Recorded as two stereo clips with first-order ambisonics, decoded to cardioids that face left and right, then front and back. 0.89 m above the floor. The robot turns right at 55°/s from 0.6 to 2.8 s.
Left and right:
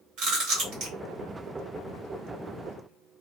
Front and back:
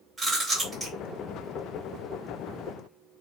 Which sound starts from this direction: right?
Chewing, at 0.2 s.